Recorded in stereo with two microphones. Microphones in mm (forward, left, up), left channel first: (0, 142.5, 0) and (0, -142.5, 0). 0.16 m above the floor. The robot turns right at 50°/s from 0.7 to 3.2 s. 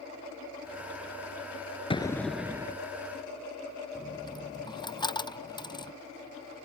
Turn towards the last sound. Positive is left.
turn(degrees=15)  # may be behind; listen again after turning